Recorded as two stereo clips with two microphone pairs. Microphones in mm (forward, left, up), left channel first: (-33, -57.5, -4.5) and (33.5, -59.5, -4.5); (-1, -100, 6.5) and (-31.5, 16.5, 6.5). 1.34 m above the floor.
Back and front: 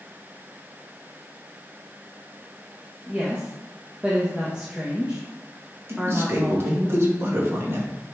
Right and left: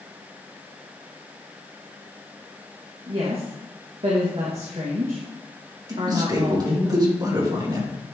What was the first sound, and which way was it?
A woman speaking, 75° left.